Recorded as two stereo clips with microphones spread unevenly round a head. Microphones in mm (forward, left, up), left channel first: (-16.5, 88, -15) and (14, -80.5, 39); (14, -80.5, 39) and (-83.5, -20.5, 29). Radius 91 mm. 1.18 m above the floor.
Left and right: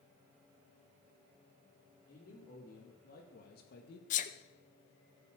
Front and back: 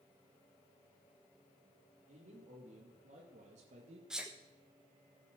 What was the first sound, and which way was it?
A man speaking, 140° left.